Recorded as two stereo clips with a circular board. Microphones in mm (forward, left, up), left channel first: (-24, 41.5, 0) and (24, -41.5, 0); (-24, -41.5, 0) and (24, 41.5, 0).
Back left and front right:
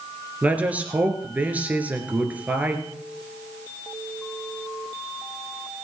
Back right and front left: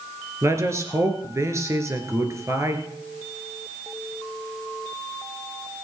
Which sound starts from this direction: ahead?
A man speaking, at 0.4 s.